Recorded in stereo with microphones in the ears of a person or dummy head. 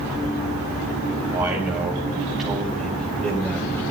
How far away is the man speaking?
About 4.5 m.